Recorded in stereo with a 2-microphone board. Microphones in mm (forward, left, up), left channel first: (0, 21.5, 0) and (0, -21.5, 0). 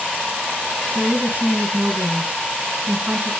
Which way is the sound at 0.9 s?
50° right (ahead or behind).